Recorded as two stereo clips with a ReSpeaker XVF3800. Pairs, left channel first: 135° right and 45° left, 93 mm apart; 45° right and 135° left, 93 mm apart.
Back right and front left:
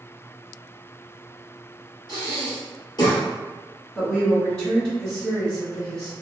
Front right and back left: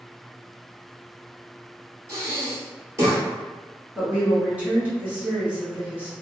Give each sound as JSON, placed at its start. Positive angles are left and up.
{"t": 2.1, "sound": "breathing", "azimuth_deg": -170, "distance_m": 1.6}
{"t": 4.0, "sound": "a woman speaking", "azimuth_deg": 160, "distance_m": 1.5}